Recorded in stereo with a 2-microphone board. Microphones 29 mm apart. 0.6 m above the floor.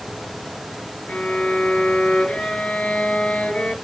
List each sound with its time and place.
1.1 s a violin: 45° left (ahead or behind), 2.5 m